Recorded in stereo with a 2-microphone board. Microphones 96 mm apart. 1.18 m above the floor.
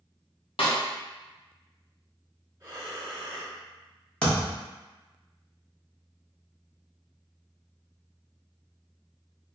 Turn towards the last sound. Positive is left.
turn(degrees=10)  # may be behind; listen again after turning